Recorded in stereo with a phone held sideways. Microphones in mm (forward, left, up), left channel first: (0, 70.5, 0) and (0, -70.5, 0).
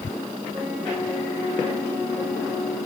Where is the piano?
20° right (ahead or behind), 3 m.